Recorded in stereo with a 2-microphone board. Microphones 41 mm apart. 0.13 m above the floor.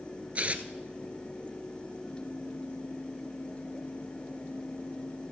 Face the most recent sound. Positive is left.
turn(degrees=-35)  # may be behind; listen again after turning